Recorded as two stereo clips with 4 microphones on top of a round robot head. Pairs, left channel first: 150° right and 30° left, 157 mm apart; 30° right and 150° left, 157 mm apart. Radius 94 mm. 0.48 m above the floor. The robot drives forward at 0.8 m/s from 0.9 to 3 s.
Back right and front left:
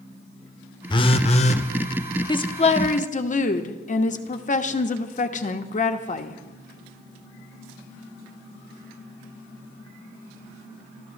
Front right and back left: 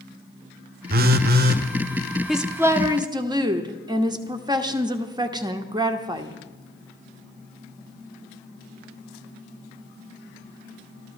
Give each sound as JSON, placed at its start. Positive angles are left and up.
{"t": 0.9, "sound": "a phone buzzing", "azimuth_deg": 155, "distance_m": 0.6}
{"t": 2.3, "sound": "a woman speaking", "azimuth_deg": -120, "distance_m": 0.8}